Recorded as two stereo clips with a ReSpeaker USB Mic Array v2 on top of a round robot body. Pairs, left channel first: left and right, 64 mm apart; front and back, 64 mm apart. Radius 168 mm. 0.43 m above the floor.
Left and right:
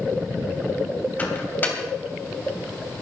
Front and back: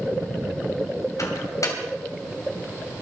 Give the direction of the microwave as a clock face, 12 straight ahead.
11 o'clock.